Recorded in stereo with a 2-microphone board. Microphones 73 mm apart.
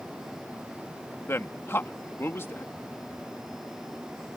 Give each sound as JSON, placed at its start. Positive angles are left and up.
{"t": 1.3, "sound": "a man speaking", "side_deg": 35}